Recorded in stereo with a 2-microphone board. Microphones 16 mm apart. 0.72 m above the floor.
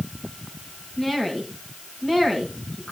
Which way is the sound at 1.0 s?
30° left (ahead or behind).